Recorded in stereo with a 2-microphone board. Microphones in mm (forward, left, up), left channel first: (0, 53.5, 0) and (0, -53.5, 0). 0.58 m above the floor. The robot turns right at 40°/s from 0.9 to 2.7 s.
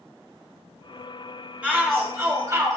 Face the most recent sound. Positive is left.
turn(degrees=-120)